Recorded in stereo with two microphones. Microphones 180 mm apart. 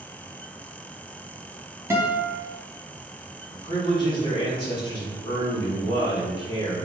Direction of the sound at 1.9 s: 15° right (ahead or behind).